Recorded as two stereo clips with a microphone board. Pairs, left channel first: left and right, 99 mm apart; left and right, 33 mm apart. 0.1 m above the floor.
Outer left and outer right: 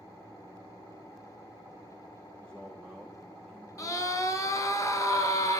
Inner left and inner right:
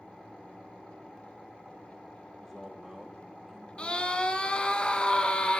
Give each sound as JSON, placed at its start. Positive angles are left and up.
{"t": 2.4, "sound": "a man speaking", "side_deg": 10, "distance_m": 6.0}
{"t": 3.8, "sound": "a scream", "side_deg": 35, "distance_m": 1.6}